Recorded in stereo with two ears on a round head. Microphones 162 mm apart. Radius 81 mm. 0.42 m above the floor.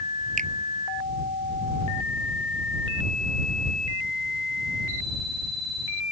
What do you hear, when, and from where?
0.4 s a finger snap: 50° right (ahead or behind)